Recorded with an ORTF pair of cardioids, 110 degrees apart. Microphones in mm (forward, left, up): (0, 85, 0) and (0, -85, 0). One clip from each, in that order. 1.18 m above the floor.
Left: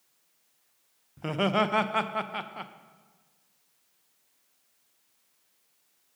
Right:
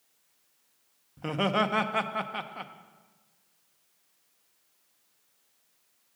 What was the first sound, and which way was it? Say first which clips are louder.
Laughter: left 1 dB; 5° left.